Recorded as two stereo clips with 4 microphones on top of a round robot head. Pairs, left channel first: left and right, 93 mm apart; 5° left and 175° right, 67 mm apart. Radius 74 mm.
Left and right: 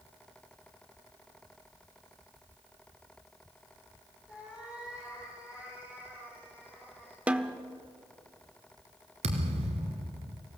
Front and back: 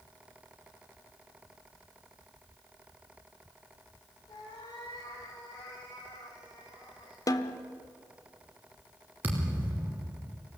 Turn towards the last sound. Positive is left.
turn(degrees=-105)